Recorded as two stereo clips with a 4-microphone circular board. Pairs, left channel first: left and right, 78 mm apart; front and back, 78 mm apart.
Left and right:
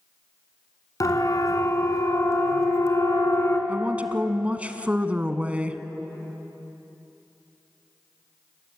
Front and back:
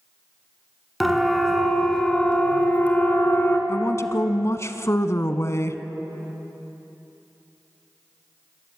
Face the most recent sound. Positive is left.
turn(degrees=-25)